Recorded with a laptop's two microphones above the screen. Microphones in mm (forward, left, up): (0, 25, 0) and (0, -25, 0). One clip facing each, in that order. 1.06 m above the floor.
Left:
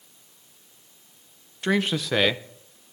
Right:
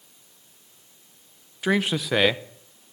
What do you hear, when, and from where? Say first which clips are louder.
1.6 s a man speaking: right 1 dB; 5° right (ahead or behind), 0.8 m